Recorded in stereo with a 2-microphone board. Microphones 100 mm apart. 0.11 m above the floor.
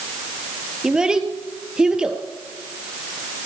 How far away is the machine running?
No machine running in this recording.